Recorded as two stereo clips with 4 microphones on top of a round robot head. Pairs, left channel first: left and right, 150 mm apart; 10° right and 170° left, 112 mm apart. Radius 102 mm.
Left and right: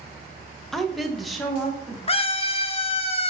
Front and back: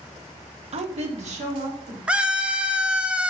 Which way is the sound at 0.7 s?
175° left.